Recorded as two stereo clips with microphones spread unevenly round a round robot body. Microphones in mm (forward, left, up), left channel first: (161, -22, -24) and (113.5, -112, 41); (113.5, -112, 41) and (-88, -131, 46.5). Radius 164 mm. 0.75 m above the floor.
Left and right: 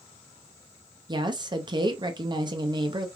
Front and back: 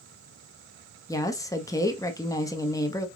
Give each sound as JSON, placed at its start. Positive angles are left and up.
{"t": 1.1, "sound": "a woman speaking", "azimuth_deg": -40, "distance_m": 0.8}